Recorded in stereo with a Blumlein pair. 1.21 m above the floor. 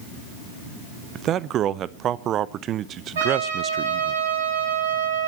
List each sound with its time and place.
1.1 s a man speaking: 30° right, 0.8 m
3.1 s a trumpet: 60° right, 8 m